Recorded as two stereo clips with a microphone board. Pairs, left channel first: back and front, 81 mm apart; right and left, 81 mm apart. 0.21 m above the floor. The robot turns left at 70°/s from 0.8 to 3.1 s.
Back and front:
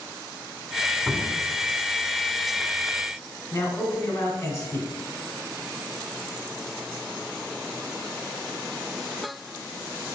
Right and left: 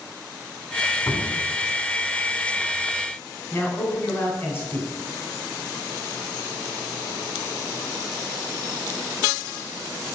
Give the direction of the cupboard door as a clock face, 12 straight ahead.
3 o'clock.